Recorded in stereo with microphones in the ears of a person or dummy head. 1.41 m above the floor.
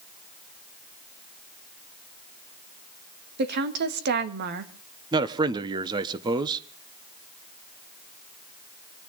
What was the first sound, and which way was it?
A woman speaking, 55° right (ahead or behind).